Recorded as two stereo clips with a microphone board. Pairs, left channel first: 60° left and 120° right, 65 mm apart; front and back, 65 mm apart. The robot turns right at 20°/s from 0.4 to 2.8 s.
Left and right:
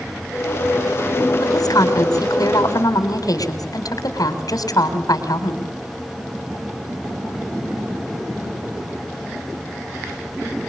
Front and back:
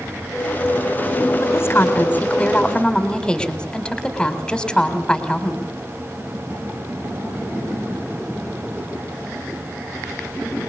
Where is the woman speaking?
50° left, 4.5 m; by 5.7 s 75° left, 4.5 m.